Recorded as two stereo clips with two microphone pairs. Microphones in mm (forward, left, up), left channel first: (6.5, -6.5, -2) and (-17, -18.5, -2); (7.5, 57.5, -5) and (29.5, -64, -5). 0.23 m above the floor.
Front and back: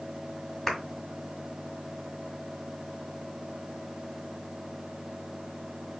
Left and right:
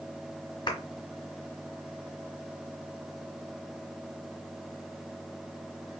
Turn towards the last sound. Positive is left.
turn(degrees=95)